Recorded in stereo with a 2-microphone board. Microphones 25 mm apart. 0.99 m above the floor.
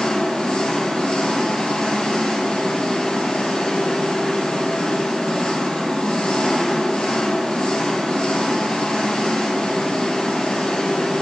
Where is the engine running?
65° left (ahead or behind), 1.9 m.